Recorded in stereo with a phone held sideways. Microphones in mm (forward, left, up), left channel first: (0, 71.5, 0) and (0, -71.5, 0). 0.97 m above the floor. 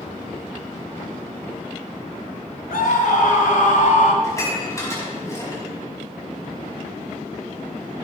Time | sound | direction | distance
2.7 | a scream | 85° left | 3 m
4.2 | dishes clattering | 20° left (ahead or behind) | 5.5 m